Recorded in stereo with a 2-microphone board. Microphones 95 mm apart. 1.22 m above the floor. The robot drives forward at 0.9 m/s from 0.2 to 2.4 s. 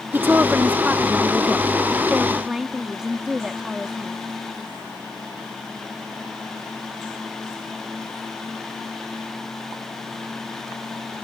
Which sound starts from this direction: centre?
A woman speaking, at 0.1 s.